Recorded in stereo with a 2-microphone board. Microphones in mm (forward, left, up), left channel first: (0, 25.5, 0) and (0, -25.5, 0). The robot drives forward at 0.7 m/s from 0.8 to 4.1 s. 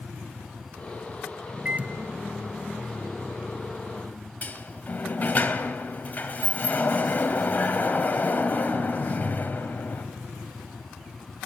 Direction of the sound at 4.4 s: 35° left (ahead or behind).